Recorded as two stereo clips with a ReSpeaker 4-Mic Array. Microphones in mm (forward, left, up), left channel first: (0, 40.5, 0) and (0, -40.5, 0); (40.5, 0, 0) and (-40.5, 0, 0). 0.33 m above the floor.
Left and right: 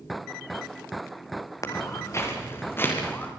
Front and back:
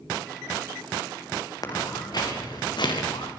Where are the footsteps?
40° left, 5 m; by 3.3 s 20° left, 5.5 m.